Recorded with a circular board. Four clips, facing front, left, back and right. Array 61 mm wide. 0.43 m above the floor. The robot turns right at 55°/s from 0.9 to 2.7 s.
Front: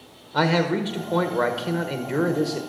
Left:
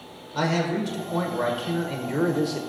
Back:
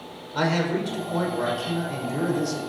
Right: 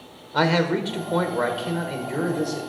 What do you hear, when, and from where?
0.3 s a man speaking: 60° right, 1.2 m; by 2.6 s 35° left, 1.2 m